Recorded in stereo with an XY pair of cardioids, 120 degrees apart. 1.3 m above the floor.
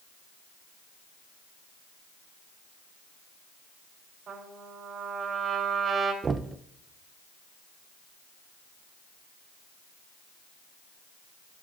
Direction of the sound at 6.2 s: 30° right.